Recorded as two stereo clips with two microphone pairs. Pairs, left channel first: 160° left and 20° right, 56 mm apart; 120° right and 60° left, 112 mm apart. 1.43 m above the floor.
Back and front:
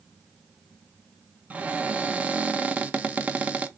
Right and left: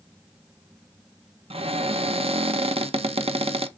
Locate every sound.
1.5 s a cupboard door: 40° left, 0.5 m